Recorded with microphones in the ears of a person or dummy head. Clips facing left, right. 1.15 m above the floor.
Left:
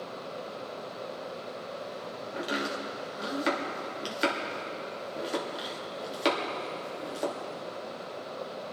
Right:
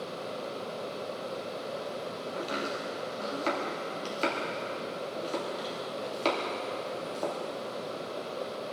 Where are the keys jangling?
No keys jangling in this recording.